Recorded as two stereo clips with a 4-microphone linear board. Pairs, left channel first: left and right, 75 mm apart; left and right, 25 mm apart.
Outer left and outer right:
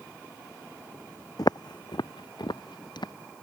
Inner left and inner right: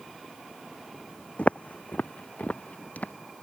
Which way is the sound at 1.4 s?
60° left (ahead or behind).